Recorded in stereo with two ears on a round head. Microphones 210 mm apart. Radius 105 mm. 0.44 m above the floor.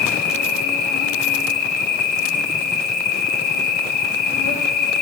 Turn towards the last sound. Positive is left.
turn(degrees=40)  # may be behind; listen again after turning